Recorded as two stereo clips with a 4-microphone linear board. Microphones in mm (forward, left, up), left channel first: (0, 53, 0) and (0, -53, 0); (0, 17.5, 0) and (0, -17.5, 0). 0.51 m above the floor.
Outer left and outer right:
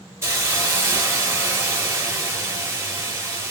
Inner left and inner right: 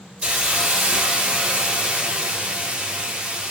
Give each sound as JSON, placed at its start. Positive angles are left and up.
{"t": 0.2, "sound": "a hiss", "side_deg": -25, "distance_m": 1.1}